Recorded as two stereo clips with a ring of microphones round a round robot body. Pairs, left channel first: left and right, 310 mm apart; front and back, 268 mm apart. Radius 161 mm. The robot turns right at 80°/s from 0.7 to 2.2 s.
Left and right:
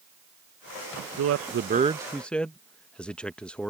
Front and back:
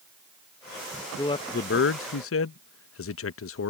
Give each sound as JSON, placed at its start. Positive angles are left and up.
{"t": 1.2, "sound": "a man speaking", "azimuth_deg": -80}